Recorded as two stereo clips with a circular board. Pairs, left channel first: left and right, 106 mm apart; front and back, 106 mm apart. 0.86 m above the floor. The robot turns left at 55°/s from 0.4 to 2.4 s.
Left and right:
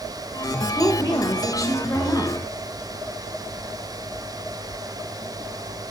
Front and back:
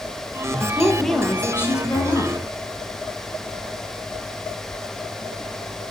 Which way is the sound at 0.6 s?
110° left.